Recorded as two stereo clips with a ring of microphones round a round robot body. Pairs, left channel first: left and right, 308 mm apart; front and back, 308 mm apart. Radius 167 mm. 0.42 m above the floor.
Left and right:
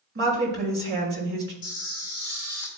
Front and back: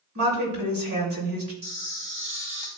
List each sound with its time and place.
0.1 s a woman speaking: 145° right, 2 m
1.6 s a camera shutter: 110° left, 3 m